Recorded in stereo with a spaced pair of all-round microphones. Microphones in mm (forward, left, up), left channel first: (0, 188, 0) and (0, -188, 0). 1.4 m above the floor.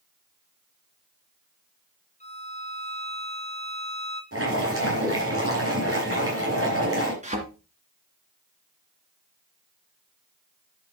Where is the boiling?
35° right (ahead or behind), 6.5 m.